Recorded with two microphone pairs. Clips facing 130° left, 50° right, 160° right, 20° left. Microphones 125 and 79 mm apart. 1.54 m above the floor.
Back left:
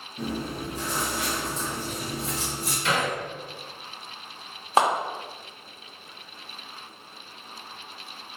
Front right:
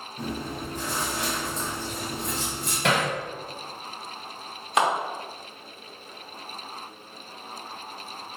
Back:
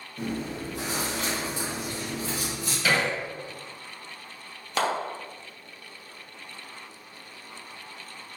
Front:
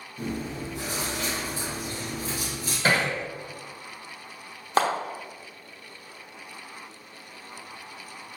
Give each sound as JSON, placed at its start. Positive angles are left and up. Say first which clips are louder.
{"t": 0.2, "sound": "chewing", "louder": "back left 2 dB, back 1 dB", "azimuth_deg": -150, "distance_m": 2.0}
{"t": 2.8, "sound": "hammering", "louder": "front right 2 dB, front 1 dB", "azimuth_deg": -30, "distance_m": 1.1}
{"t": 4.8, "sound": "a clap", "louder": "back left 2 dB, front 4 dB", "azimuth_deg": 70, "distance_m": 1.0}